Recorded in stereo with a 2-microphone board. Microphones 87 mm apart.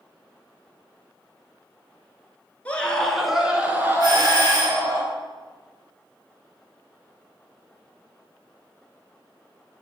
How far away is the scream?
About 1.6 m.